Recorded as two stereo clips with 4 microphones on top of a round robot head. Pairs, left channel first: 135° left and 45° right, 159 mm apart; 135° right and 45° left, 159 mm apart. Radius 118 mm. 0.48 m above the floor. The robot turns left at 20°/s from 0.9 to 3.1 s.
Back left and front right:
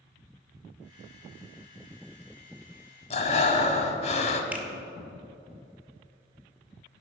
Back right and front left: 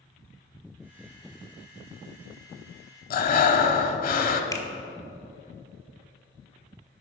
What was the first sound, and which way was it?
Breathing, 170° right.